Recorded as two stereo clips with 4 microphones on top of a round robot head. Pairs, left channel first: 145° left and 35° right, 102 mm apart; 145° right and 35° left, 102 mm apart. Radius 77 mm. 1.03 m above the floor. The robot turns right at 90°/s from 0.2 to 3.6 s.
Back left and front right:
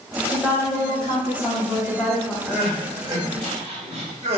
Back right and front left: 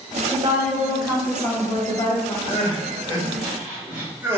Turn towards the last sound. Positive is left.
turn(degrees=-35)